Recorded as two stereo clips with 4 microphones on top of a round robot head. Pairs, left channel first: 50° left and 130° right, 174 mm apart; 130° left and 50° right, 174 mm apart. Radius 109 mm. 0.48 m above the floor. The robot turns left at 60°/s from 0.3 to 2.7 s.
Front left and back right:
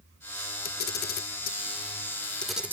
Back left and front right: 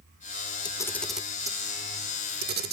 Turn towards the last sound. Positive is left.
turn(degrees=-55)